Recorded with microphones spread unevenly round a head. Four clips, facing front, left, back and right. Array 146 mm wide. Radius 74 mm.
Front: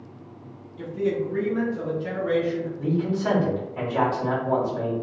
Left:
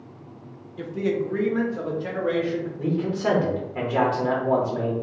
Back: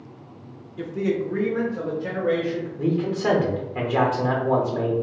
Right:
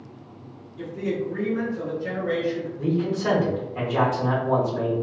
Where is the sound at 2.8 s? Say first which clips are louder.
Right 1 dB, back 3 dB; 160° left, 1.2 m.